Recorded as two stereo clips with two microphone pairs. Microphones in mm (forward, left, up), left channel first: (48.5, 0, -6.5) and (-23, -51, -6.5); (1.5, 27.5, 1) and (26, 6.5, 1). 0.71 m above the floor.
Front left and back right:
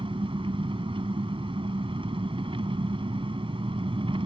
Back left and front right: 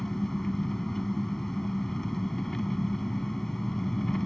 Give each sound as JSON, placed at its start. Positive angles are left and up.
{"t": 0.0, "sound": "an engine running", "azimuth_deg": -140}